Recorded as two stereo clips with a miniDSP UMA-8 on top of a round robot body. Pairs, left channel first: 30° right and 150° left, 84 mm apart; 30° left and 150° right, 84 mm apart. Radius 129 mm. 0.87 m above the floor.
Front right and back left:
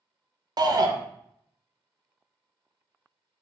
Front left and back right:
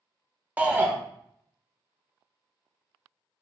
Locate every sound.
0.6 s a shout: 145° left, 0.6 m